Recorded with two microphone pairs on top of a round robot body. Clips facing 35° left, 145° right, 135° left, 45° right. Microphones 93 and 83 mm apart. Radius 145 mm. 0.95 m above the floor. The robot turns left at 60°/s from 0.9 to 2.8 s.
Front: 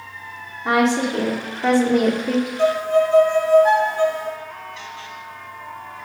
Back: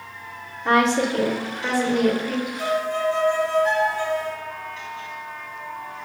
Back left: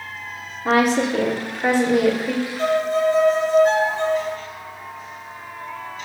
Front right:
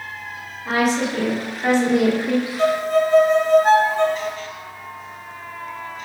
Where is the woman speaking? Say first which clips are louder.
Front 1 dB, back left 2 dB; 110° left, 2.5 m; by 2.5 s 10° left, 2.5 m.